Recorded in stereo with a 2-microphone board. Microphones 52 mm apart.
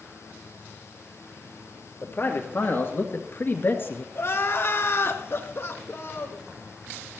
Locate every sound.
2.0 s a man speaking: 50° left (ahead or behind), 2.5 m; by 4.0 s 45° left (ahead or behind), 1.7 m
4.2 s crying: 55° left (ahead or behind), 1.3 m